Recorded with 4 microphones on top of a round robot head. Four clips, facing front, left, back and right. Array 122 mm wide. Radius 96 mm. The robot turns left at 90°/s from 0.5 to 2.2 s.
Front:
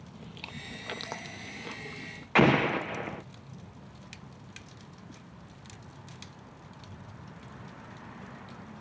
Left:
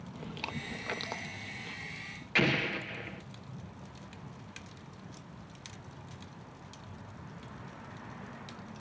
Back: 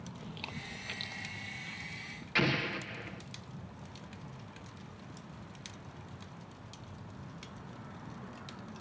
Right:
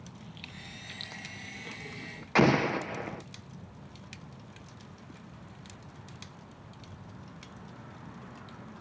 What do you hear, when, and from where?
0.1 s chewing: 95° left; by 2.2 s 60° right
2.4 s an explosion: 35° right